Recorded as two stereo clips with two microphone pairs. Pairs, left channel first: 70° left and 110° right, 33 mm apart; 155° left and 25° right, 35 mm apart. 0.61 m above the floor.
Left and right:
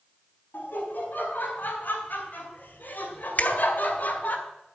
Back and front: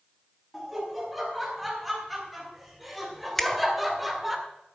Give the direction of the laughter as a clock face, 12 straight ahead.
10 o'clock.